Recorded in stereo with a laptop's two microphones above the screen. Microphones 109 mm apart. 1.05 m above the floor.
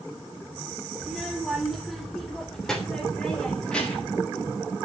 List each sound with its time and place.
1.0 s a child speaking: 5° right (ahead or behind), 3 m; by 4.2 s 10° left (ahead or behind), 4 m